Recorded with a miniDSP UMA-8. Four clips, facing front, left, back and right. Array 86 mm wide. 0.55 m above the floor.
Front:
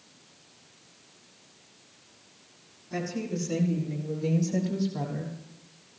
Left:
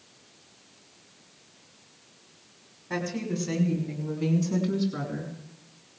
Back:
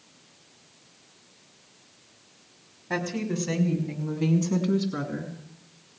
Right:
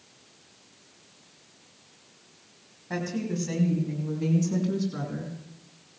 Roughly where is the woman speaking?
Behind.